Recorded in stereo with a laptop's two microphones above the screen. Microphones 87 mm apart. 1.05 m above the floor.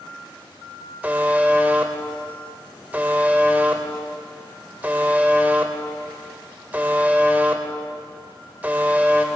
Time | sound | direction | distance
1.0 | a buzzer | 20° right (ahead or behind) | 1.1 m